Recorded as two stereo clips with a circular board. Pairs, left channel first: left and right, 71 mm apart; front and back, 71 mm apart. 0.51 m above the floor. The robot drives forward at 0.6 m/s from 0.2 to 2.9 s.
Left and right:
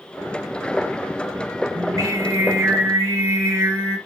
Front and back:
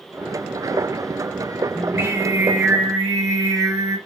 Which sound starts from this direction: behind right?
Singing, at 1.8 s.